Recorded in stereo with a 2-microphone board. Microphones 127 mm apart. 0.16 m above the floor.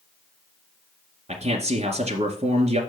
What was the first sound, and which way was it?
A man speaking, 60° right (ahead or behind).